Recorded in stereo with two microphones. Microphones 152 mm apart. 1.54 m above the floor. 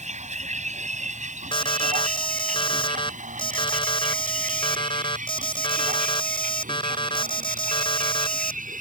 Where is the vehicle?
55° right (ahead or behind); by 8.8 s 70° right (ahead or behind).